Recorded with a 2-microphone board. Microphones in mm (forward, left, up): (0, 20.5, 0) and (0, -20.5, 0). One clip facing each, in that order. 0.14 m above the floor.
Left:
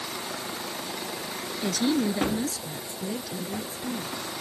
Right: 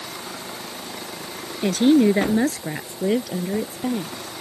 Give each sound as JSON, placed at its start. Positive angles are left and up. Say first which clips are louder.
{"t": 1.6, "sound": "a woman speaking", "louder": "right 10 dB", "side_deg": -40}